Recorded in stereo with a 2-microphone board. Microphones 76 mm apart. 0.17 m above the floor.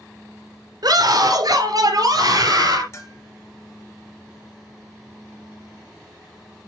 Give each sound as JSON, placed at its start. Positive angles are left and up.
{"t": 0.8, "sound": "a scream", "side_deg": -55, "distance_m": 2.5}
{"t": 2.9, "sound": "a bell", "side_deg": 40, "distance_m": 1.8}